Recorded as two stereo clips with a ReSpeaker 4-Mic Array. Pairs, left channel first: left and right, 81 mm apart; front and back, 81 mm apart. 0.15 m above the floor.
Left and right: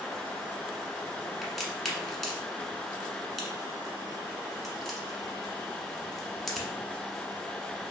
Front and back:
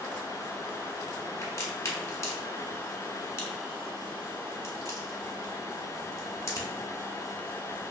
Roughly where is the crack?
Ahead.